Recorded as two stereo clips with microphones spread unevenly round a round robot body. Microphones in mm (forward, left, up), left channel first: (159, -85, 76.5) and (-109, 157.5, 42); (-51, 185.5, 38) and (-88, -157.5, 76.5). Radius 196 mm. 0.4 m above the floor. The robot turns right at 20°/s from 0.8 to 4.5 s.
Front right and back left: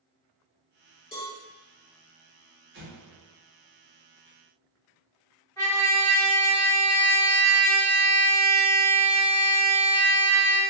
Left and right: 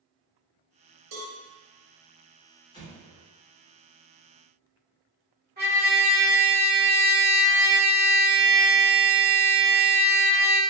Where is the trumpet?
125° right, 1.5 m.